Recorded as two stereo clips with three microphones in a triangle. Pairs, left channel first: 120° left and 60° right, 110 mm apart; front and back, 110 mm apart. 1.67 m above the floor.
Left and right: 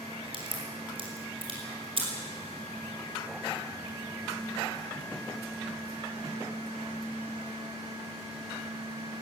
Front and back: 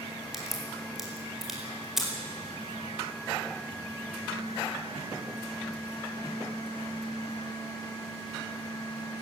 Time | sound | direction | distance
0.3 | a crack | 95° right | 5 m